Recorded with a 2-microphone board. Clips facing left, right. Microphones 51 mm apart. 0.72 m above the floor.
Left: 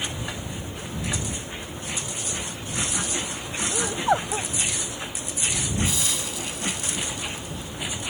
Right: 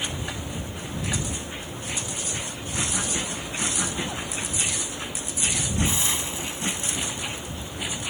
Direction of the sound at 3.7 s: 75° left (ahead or behind).